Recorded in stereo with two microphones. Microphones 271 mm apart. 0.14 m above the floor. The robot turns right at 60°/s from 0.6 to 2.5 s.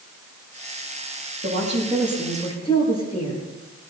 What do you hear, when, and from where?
1.4 s a woman speaking: 45° right, 8.5 m; by 3.5 s 20° left, 8.5 m